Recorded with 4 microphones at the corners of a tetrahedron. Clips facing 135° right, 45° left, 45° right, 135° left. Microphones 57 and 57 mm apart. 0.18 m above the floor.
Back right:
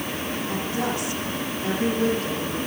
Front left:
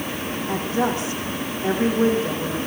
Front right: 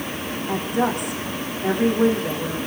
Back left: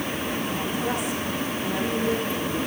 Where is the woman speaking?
15° right, 9.5 m.